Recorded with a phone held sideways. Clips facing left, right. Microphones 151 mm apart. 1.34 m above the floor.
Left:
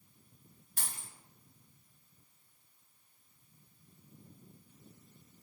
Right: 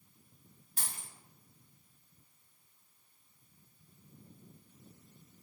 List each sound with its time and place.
0.8 s a dropped coin: 35° right (ahead or behind), 1.6 m